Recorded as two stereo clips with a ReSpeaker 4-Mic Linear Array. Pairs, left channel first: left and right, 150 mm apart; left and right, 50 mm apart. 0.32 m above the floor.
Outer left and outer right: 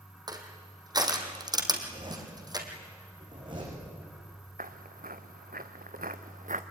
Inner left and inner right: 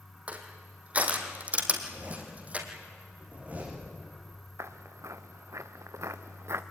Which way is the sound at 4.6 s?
70° right (ahead or behind).